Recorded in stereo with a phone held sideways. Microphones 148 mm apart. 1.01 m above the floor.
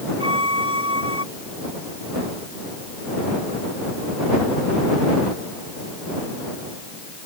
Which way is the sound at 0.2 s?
35° right (ahead or behind).